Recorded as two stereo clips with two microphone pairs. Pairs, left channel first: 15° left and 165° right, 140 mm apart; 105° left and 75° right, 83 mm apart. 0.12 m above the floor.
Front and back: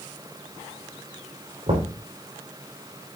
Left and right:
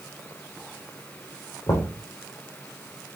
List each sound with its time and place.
1.7 s knocking: 155° left, 3.5 m